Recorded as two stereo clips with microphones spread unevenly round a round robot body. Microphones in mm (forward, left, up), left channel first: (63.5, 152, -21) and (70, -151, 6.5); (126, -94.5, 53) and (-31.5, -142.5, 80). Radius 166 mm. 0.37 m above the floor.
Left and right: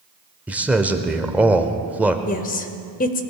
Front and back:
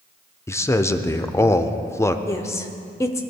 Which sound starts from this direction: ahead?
A man speaking, at 0.5 s.